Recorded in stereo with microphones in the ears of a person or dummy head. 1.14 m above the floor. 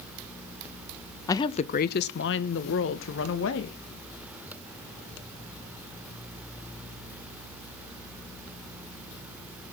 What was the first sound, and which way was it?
A woman speaking, 10° left (ahead or behind).